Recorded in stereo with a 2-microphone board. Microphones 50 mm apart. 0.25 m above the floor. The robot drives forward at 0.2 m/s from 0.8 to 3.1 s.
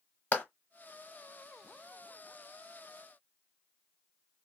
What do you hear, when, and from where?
0.3 s a clap: 30° left (ahead or behind), 1.1 m